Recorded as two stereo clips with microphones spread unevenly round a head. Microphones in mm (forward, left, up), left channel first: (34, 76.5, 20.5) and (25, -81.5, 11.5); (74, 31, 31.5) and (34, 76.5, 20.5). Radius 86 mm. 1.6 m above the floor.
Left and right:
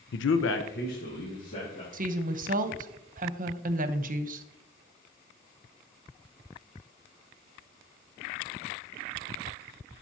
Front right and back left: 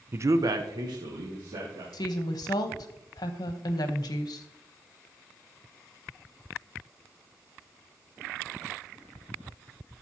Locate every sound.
0.1 s a man speaking: 75° left, 0.5 m; by 1.8 s 140° left, 2.5 m
1.9 s a woman speaking: 55° right, 0.9 m